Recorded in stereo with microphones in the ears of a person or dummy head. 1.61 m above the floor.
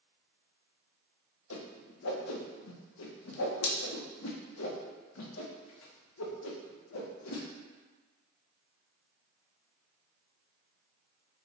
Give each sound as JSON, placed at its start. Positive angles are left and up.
{"t": 1.5, "sound": "a whoosh", "side_deg": 85, "distance_m": 0.7}